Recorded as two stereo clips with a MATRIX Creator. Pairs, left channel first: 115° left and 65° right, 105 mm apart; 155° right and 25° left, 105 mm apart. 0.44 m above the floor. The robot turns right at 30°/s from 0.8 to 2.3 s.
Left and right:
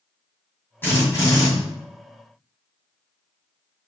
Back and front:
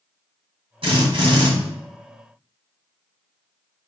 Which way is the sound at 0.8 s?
45° left.